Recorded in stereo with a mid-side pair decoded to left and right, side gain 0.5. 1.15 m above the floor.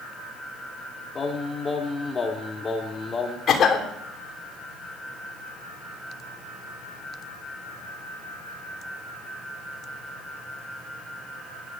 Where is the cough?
50° left, 3.5 m.